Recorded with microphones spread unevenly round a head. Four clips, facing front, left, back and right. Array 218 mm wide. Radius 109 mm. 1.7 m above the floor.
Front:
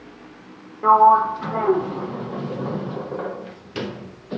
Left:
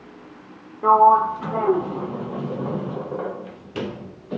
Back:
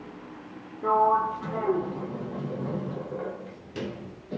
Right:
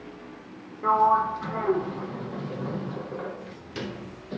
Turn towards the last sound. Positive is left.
turn(degrees=75)